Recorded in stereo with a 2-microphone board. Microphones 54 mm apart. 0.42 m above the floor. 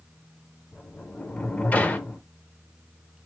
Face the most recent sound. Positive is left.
turn(degrees=30)  # may be behind; listen again after turning